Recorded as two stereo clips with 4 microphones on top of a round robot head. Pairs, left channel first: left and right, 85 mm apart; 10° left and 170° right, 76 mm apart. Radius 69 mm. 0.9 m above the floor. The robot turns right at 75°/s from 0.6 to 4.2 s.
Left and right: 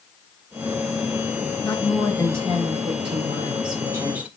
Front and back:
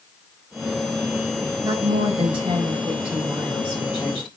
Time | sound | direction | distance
1.6 | a woman speaking | 150° left | 5 m